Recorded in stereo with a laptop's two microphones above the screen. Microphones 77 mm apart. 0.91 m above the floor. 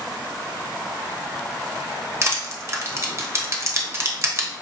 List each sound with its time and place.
2.2 s crushing: 35° right (ahead or behind), 0.8 m